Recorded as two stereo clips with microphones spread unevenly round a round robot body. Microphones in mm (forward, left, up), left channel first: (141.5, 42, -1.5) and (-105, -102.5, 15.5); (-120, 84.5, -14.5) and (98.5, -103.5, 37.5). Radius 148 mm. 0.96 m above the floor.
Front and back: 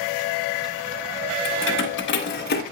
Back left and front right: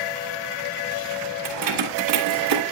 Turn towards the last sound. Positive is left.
turn(degrees=-25)